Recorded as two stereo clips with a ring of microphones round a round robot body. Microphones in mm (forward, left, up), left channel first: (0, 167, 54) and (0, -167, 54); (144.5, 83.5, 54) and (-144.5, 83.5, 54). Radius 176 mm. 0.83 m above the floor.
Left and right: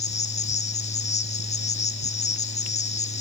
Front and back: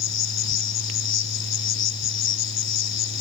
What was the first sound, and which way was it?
An insect, 20° left.